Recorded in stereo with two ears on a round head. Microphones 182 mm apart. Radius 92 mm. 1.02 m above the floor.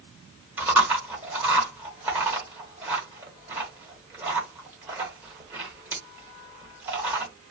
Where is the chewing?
10° right (ahead or behind), 1.4 m.